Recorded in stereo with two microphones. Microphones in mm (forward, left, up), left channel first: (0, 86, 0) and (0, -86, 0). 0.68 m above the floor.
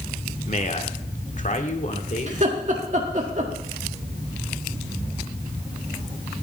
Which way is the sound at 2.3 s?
45° right (ahead or behind).